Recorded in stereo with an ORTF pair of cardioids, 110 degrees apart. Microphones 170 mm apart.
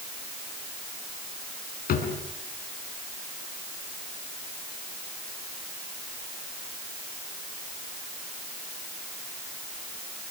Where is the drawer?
60° left, 5 m.